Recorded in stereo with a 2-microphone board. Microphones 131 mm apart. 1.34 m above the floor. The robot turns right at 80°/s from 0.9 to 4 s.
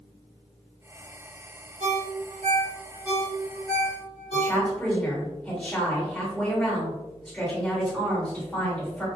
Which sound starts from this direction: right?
A ringtone, at 1.8 s.